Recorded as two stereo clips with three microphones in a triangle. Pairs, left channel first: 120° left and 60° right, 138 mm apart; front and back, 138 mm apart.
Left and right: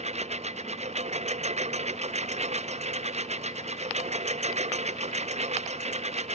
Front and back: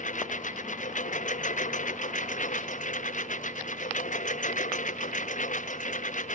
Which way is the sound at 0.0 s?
25° right.